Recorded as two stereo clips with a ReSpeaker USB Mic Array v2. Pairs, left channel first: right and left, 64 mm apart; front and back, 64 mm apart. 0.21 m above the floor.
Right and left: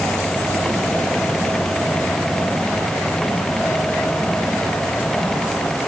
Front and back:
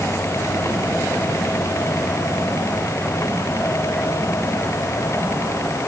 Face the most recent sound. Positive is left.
No sound to turn to.